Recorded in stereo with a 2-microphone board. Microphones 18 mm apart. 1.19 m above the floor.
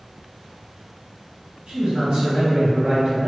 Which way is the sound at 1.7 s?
65° right (ahead or behind).